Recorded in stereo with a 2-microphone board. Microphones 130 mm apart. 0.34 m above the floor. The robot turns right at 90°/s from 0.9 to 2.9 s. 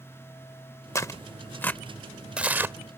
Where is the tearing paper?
20° left (ahead or behind); by 3.0 s 20° right (ahead or behind).